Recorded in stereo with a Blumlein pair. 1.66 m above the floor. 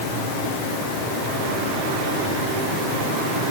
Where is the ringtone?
I don't hear a ringtone.